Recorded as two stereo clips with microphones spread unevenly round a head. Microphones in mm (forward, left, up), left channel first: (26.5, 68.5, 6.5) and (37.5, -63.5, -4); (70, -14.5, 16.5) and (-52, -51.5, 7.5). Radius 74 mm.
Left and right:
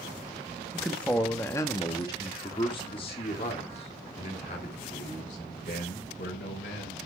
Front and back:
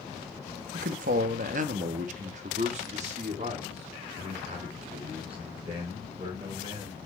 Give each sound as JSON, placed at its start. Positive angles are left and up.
{"t": 0.7, "sound": "a man speaking", "azimuth_deg": -175, "distance_m": 1.1}